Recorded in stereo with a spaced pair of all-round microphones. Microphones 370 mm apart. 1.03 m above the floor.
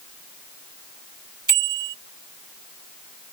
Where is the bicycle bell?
55° right (ahead or behind).